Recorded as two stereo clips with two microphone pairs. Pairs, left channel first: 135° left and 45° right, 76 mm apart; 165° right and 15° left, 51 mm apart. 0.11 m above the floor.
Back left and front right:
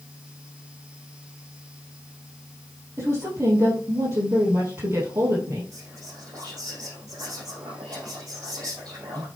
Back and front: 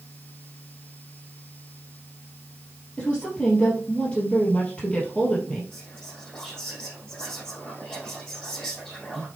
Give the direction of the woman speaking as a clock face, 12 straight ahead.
3 o'clock.